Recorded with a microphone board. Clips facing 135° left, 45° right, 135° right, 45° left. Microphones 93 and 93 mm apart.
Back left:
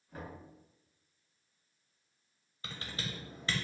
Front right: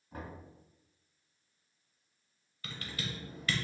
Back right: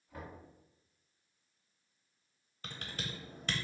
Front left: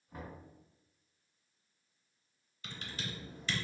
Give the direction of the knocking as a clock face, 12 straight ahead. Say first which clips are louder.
Front right 1 dB, even; 1 o'clock.